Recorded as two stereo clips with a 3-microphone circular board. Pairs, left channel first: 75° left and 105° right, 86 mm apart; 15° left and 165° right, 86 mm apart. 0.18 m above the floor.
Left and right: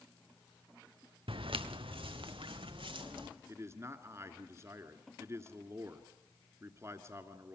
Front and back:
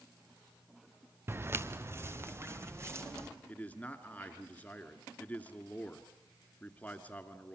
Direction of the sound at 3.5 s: 55° right.